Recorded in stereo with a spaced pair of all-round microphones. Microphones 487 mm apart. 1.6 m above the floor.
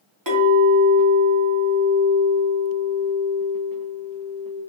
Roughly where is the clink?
Right.